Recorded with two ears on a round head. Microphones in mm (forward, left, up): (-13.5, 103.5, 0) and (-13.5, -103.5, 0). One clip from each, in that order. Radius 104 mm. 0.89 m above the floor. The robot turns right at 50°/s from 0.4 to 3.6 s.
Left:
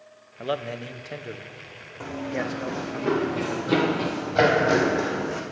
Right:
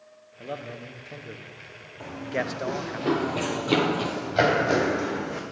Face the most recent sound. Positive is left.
turn(degrees=15)  # may be behind; listen again after turning